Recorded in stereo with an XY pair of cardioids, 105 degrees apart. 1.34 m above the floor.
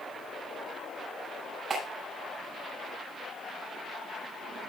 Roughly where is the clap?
Ahead right.